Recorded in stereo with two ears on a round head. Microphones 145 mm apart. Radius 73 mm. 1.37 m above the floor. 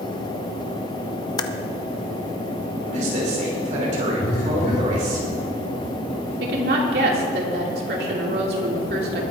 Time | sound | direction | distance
1.4 | typing on a keyboard | 25° left (ahead or behind) | 0.7 m
2.9 | a man speaking | 50° right (ahead or behind) | 5 m
4.2 | a phone buzzing | 65° left (ahead or behind) | 5.5 m
6.4 | a woman speaking | 65° right (ahead or behind) | 3 m